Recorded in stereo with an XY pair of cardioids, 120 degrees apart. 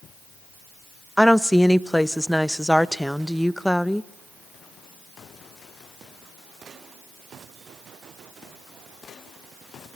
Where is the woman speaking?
Straight ahead, 0.6 m.